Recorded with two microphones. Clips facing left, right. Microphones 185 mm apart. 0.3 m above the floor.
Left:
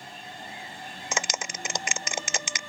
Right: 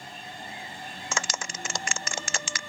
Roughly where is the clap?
Centre.